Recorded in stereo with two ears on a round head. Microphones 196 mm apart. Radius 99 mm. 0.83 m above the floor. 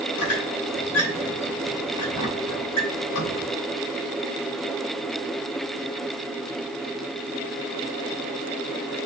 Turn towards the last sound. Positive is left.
turn(degrees=85)